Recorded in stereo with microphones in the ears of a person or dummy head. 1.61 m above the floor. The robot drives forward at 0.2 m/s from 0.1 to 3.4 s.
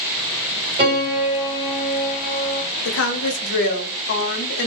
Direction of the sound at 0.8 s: 35° right (ahead or behind).